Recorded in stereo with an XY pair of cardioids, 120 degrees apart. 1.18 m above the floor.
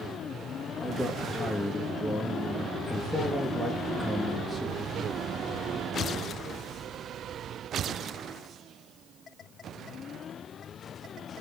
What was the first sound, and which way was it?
A man speaking, 5° left.